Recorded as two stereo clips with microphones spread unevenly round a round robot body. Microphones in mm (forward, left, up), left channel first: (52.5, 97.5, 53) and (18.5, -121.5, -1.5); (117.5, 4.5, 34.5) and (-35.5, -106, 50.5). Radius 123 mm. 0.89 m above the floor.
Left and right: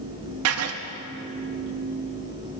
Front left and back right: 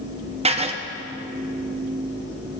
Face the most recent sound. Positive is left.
turn(degrees=-85)